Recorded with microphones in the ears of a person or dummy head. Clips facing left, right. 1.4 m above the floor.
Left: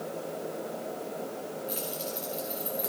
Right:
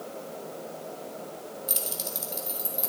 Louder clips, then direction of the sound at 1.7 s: Left 3 dB; 55° right (ahead or behind).